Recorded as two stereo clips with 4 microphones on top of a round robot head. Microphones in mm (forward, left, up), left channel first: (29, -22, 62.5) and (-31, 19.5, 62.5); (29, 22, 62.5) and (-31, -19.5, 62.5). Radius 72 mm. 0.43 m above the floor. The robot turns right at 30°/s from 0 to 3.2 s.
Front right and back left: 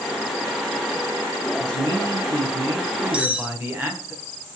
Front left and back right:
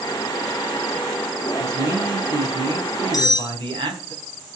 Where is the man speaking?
160° left, 3.5 m; by 4.1 s 155° right, 3.5 m.